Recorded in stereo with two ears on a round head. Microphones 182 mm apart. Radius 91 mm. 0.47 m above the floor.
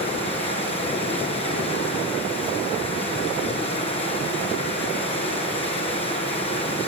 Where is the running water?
30° left (ahead or behind), 7.5 m.